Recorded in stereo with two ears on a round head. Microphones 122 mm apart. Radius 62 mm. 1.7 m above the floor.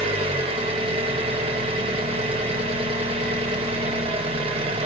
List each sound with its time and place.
0.0 s an engine running: 45° right (ahead or behind), 0.9 m